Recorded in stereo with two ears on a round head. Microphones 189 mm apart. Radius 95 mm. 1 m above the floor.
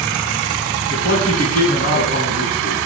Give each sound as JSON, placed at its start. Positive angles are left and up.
{"t": 0.9, "sound": "a man speaking", "side_deg": 40, "distance_m": 8.5}